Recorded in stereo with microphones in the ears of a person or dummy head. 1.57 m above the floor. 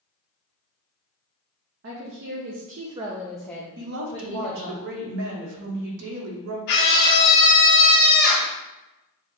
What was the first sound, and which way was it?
A woman speaking, 70° right (ahead or behind).